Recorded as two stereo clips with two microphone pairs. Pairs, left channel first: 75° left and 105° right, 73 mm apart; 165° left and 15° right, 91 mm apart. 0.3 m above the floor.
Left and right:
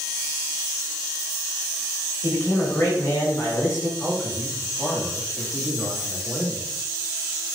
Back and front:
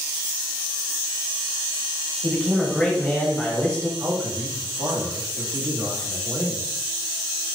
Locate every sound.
2.2 s a man speaking: 95° left, 1.1 m
4.0 s a man speaking: 15° right, 1.5 m